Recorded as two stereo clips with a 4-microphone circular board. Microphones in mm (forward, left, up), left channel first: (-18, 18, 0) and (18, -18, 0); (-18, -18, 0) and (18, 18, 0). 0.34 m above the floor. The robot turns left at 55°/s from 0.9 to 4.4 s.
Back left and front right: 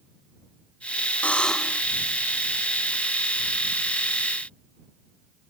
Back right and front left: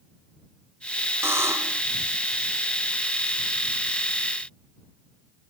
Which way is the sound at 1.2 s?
75° left.